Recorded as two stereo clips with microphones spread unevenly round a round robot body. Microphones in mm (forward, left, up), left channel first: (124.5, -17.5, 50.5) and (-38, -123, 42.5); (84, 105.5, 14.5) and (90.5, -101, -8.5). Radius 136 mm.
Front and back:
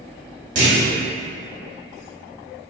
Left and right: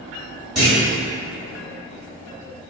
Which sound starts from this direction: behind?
A clunk, at 0.6 s.